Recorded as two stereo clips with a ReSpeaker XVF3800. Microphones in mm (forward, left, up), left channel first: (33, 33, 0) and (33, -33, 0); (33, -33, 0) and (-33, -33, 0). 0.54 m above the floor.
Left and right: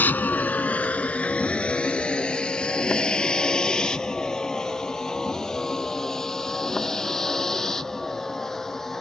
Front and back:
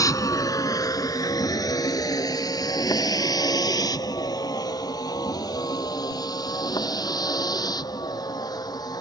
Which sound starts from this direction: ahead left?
A vehicle, at 0.0 s.